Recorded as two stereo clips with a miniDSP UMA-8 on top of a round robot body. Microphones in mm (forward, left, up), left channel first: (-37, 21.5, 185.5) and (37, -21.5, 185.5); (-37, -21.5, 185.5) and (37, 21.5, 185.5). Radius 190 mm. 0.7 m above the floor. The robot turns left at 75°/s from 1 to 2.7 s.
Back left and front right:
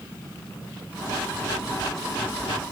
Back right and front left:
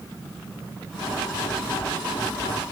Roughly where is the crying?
No crying in this recording.